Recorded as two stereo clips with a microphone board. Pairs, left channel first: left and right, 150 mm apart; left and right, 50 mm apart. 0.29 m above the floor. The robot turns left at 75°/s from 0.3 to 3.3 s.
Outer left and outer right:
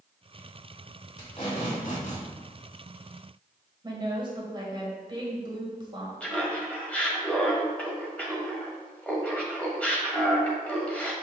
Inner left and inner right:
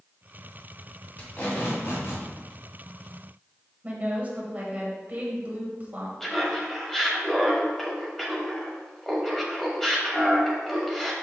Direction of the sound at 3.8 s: 30° right (ahead or behind).